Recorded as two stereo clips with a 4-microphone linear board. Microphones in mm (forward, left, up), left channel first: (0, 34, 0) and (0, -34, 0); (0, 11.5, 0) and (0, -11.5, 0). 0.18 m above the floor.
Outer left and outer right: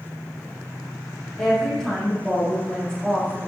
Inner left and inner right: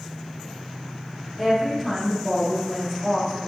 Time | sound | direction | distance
1.4 | a woman speaking | 15° left (ahead or behind) | 4 m